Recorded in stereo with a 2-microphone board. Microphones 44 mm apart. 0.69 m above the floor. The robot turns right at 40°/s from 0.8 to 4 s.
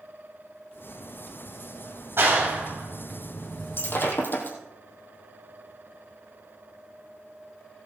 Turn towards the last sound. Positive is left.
turn(degrees=50)  # may be behind; listen again after turning